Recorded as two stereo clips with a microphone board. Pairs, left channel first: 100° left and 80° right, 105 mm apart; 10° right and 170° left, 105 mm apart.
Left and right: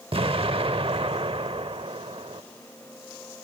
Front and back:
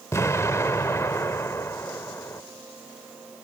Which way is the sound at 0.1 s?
70° right.